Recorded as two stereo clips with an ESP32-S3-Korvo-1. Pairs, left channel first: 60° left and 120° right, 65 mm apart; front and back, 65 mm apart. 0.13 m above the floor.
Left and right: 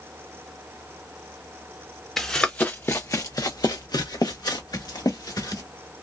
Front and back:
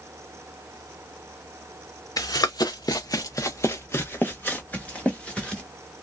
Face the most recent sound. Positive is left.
turn(degrees=75)